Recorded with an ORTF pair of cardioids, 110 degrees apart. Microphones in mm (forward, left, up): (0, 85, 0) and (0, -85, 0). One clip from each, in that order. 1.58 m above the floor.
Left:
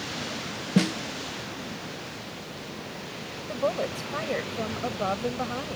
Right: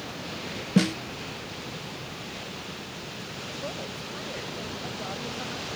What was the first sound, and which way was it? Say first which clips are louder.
A snare drum: right 1 dB; 5° right.